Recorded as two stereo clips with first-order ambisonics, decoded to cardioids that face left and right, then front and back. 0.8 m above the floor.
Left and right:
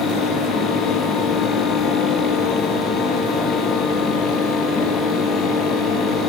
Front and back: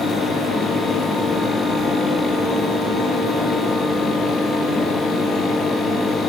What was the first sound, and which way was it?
Only background noise.